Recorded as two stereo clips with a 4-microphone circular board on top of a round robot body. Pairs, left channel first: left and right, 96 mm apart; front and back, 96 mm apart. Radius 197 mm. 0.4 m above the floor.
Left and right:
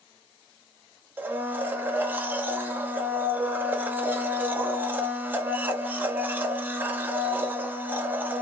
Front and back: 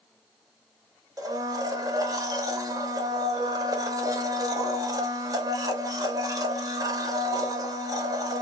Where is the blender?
150° right, 1.6 m.